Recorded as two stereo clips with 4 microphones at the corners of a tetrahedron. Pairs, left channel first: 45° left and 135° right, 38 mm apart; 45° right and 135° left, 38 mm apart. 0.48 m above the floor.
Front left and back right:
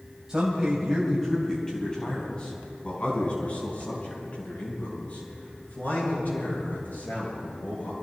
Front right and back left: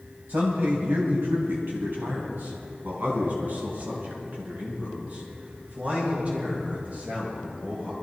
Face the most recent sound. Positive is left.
turn(degrees=80)